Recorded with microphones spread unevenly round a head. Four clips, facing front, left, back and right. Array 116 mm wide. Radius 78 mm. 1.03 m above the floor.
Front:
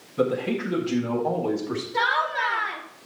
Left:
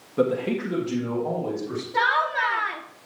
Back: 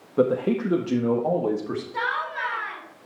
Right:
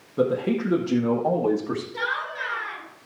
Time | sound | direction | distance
0.2 | a man speaking | 165° left | 1.5 m
1.9 | laughter | 85° left | 1.7 m